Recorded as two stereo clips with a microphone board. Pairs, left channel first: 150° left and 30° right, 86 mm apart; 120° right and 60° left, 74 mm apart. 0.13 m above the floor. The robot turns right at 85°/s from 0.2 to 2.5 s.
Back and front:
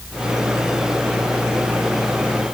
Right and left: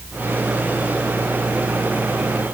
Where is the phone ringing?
I don't hear a phone ringing.